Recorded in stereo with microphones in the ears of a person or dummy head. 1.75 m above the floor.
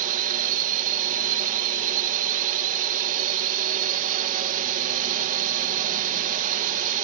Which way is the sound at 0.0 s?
40° right (ahead or behind).